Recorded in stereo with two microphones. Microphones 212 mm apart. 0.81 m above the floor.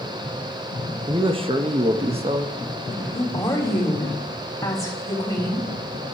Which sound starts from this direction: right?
A man speaking, at 1.1 s.